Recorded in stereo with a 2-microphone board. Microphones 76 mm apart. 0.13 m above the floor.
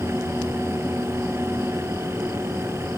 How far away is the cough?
I don't hear a cough.